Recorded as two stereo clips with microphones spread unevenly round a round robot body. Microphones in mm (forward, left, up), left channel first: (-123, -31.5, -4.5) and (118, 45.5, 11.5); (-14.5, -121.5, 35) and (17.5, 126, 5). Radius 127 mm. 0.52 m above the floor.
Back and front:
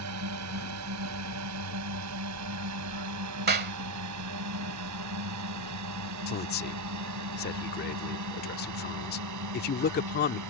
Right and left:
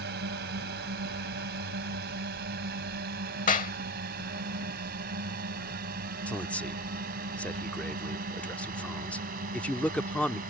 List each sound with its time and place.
0.0 s a drone: 35° left; by 10.5 s 25° left
3.5 s a clap: 35° right
6.3 s a man speaking: 175° left